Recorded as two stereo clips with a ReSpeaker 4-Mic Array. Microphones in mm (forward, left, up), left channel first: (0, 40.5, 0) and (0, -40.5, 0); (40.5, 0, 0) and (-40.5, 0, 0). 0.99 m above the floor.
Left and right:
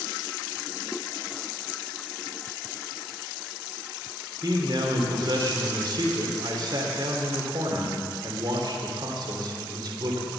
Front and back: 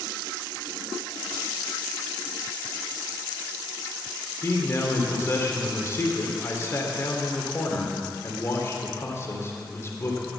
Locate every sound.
4.4 s a man speaking: 60° right, 2.5 m